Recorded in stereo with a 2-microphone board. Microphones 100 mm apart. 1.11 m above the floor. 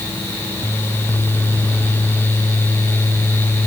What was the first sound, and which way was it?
Only background noise.